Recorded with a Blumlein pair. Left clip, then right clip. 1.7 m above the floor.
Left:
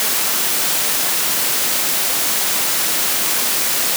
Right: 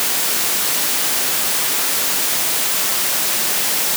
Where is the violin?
No violin in this recording.